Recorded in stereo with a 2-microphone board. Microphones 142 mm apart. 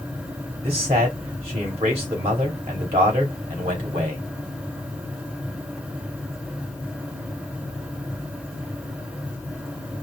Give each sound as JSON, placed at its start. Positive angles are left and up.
{"t": 0.6, "sound": "a man speaking", "side_deg": -50, "distance_m": 3.0}